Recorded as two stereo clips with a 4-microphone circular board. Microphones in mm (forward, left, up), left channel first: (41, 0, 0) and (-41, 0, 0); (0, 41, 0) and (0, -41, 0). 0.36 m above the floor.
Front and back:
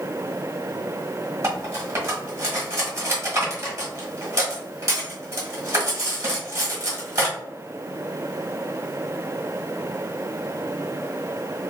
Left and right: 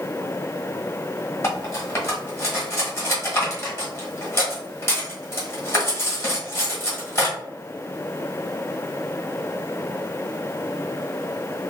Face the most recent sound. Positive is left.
turn(degrees=140)